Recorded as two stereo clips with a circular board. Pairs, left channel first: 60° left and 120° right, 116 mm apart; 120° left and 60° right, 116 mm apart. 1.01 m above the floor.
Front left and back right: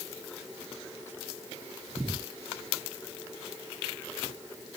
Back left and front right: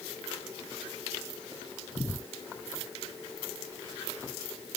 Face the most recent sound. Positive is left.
No sound to turn to.